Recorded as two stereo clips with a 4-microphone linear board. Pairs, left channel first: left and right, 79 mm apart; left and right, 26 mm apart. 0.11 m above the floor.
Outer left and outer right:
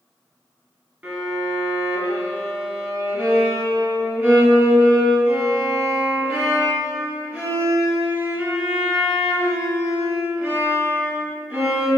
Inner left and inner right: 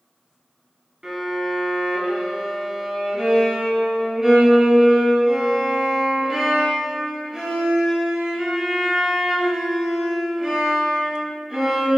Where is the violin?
15° right (ahead or behind), 1.1 m.